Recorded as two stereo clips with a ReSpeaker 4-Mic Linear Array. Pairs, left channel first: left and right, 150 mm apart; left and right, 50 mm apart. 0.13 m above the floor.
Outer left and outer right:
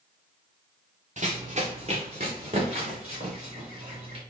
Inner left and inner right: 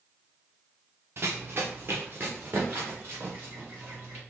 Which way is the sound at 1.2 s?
50° right (ahead or behind).